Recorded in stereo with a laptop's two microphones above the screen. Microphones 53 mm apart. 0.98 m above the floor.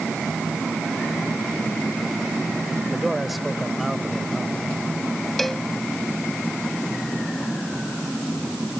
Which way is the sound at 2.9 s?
5° right (ahead or behind).